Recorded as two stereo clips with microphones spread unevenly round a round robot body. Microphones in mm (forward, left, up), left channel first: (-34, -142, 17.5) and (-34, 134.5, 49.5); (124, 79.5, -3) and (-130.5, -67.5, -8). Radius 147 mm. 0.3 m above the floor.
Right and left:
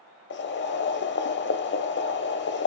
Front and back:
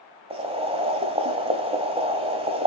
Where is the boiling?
85° right, 1.3 m.